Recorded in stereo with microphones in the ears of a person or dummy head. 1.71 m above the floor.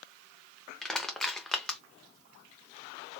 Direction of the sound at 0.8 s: 10° left (ahead or behind).